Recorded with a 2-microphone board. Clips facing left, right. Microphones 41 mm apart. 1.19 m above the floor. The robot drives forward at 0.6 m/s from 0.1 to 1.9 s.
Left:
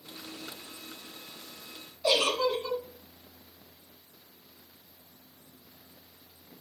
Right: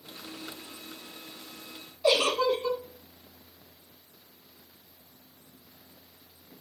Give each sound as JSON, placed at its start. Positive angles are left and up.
{"t": 2.0, "sound": "a giggle", "side_deg": -20, "distance_m": 1.2}